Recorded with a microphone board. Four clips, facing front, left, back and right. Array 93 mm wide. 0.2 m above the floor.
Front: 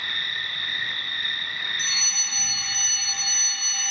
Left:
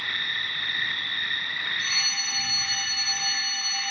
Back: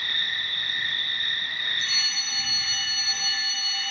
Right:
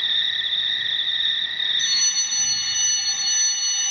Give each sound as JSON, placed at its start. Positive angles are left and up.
{"t": 0.0, "sound": "an insect", "azimuth_deg": 60, "distance_m": 1.8}
{"t": 1.8, "sound": "a fire alarm", "azimuth_deg": 70, "distance_m": 3.0}